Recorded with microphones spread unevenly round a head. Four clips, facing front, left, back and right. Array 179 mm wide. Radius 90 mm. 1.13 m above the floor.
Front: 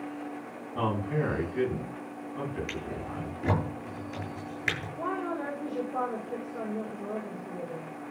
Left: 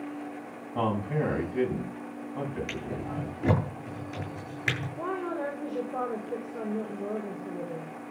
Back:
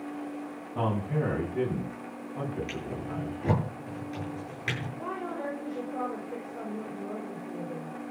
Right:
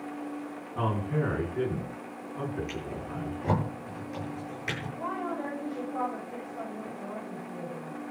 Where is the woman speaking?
95° left, 4.5 m.